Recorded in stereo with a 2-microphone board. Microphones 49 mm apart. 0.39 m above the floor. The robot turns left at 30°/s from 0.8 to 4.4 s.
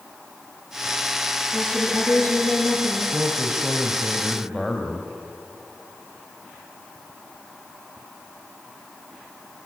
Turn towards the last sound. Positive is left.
turn(degrees=180)